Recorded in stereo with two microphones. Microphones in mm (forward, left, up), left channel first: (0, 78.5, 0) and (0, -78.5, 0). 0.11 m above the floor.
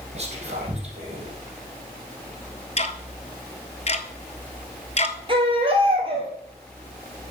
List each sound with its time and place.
0.1 s whispering: 40° right (ahead or behind), 3.5 m
2.8 s ticking: 40° left (ahead or behind), 0.7 m
5.3 s a baby crying: 30° right (ahead or behind), 2 m